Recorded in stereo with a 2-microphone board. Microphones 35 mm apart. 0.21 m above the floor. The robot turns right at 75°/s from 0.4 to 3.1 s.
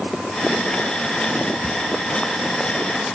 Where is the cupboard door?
Centre (ahead or behind), 1.7 m; by 1.8 s 10° right (ahead or behind), 1.7 m.